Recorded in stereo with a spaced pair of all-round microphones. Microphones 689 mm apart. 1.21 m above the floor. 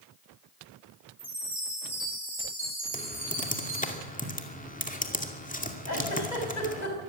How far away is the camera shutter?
No camera shutter in this recording.